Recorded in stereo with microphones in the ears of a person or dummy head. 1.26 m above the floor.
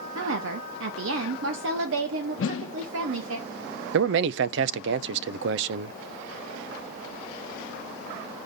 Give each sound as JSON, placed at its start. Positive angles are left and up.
{"t": 0.1, "sound": "a woman speaking", "side_deg": -75, "distance_m": 1.3}
{"t": 2.4, "sound": "a whoosh", "side_deg": 70, "distance_m": 0.9}
{"t": 3.9, "sound": "a man speaking", "side_deg": -70, "distance_m": 0.5}